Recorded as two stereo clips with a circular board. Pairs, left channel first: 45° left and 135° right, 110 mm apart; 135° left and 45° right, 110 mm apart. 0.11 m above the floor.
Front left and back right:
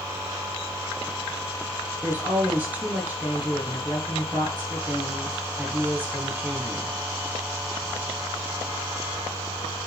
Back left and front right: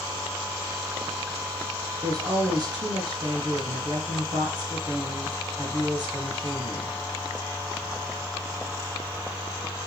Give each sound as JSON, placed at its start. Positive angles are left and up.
{"t": 2.0, "sound": "a woman speaking", "azimuth_deg": -70, "distance_m": 1.8}